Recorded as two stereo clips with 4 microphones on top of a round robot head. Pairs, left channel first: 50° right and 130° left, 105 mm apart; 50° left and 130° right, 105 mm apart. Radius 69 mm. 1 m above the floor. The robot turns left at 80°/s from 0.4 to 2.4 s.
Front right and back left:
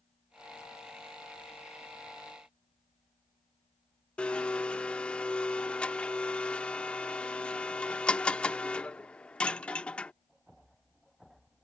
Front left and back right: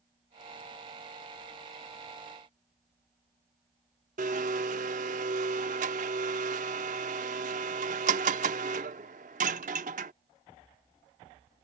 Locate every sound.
4.2 s a blender: 130° right